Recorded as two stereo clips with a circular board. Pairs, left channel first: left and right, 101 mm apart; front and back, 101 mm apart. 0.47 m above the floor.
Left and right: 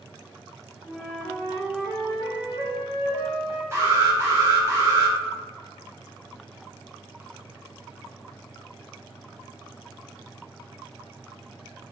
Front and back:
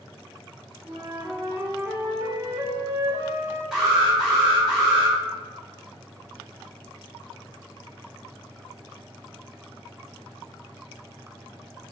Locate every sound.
0.8 s a flute: 135° right, 0.7 m
3.7 s an alarm: 105° right, 0.8 m